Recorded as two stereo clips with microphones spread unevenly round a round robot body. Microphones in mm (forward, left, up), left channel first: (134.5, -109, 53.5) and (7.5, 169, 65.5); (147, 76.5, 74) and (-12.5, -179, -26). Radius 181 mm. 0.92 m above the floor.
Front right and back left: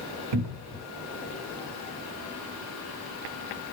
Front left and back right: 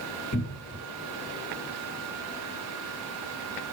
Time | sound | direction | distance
0.3 | a cupboard door | 130° left | 1.0 m